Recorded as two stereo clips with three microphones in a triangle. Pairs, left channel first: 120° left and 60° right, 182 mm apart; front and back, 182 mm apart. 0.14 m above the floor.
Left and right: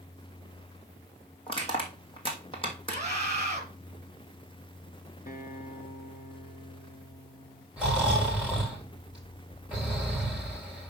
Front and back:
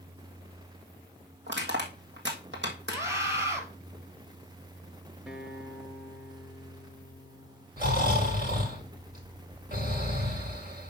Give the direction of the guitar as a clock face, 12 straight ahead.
9 o'clock.